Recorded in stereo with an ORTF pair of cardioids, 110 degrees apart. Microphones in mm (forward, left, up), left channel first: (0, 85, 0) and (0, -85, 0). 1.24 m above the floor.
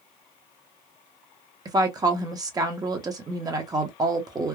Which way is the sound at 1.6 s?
20° right.